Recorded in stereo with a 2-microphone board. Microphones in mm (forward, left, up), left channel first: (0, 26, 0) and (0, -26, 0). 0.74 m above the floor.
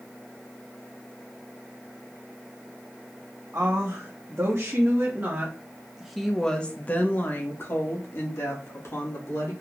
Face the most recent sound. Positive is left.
turn(degrees=70)  # may be behind; listen again after turning